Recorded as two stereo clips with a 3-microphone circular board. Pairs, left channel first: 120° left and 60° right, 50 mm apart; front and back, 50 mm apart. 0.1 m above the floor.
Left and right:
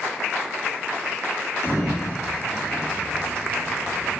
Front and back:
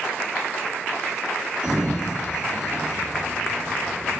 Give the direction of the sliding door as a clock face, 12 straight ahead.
8 o'clock.